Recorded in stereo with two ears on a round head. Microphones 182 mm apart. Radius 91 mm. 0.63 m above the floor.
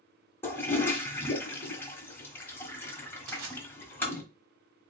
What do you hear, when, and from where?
0.4 s a toilet flushing: 10° left (ahead or behind), 1.1 m
3.3 s crushing: 65° right (ahead or behind), 2.5 m